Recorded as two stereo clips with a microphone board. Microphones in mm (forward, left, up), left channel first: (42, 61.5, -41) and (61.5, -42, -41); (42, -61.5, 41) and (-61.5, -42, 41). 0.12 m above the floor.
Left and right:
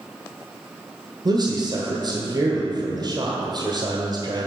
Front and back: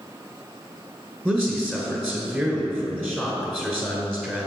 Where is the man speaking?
90° right, 1.3 m.